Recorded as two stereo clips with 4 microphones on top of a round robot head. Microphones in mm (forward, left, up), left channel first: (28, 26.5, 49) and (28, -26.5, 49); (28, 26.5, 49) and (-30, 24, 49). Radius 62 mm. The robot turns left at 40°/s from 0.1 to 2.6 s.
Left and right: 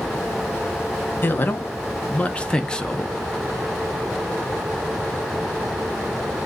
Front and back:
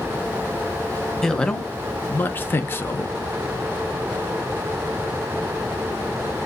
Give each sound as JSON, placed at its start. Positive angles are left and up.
{"t": 1.2, "sound": "a man speaking", "azimuth_deg": 80, "distance_m": 0.6}